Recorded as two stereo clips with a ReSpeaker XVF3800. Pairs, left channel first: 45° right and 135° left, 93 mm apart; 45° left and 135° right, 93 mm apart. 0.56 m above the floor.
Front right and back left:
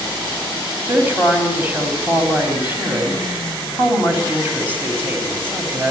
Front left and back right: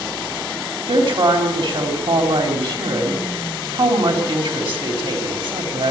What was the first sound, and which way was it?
A woman speaking, 155° right.